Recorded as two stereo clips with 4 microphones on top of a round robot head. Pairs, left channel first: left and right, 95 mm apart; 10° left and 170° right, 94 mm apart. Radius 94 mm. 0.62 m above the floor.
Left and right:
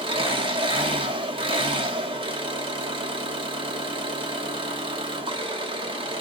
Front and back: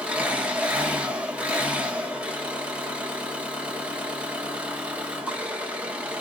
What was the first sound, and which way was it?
An engine running, 95° right.